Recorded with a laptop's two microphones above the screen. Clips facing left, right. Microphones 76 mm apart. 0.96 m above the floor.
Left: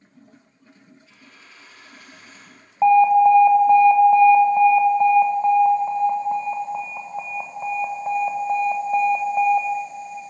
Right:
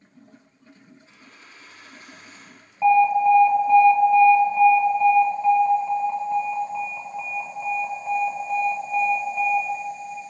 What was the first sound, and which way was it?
A dropped coin, 30° right (ahead or behind).